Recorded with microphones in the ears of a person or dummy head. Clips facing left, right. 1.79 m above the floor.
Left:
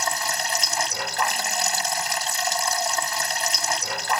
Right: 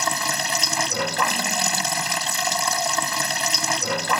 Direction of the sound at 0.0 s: 65° right (ahead or behind).